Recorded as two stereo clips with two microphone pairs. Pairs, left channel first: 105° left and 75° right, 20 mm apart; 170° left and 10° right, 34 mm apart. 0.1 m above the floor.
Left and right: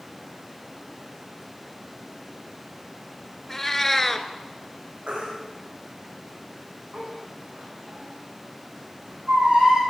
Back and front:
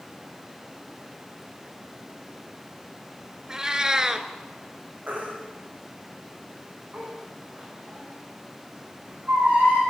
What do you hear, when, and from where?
3.5 s a cat meowing: 40° left, 0.8 m
5.1 s a baby crying: 50° right, 4.5 m